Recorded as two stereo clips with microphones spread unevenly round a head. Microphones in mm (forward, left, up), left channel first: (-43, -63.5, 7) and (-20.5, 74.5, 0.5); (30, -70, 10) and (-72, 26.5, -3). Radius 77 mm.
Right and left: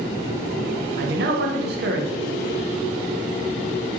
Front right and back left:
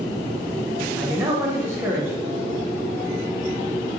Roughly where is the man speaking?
Ahead left.